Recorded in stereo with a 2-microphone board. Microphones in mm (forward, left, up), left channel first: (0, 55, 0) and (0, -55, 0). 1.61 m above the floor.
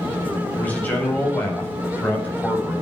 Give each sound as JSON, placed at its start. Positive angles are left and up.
{"t": 0.6, "sound": "a man speaking", "side_deg": 15, "distance_m": 8.0}